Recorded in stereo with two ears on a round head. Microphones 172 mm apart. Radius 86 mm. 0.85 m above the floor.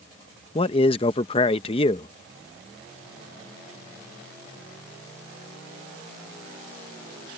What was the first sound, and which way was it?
A man speaking, 30° left (ahead or behind).